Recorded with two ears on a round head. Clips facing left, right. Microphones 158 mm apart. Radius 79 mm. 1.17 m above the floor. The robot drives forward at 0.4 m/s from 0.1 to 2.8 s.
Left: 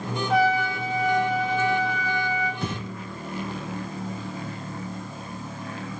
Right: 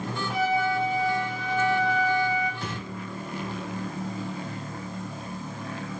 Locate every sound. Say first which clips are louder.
0.3 s a trumpet: left 3 dB; 60° left (ahead or behind), 1.8 m; by 2.5 s 70° left (ahead or behind), 1.6 m
2.6 s breathing: left 4 dB; 80° left, 1.1 m